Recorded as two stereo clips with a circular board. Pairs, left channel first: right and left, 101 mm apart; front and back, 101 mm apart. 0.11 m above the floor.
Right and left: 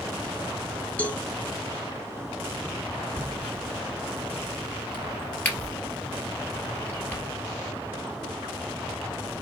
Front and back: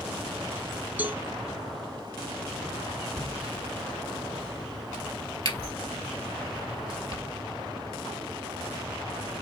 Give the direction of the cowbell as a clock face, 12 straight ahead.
5 o'clock.